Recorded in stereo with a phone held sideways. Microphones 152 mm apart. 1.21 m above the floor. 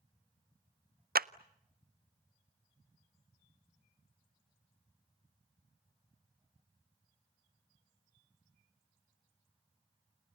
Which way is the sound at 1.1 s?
80° right.